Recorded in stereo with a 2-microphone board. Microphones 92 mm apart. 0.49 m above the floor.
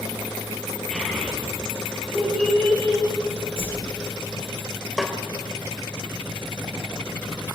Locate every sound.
0.9 s a child speaking: 10° left (ahead or behind), 8 m
3.6 s a whoosh: 85° right, 5.5 m
5.0 s a snare drum: centre (ahead or behind), 2.5 m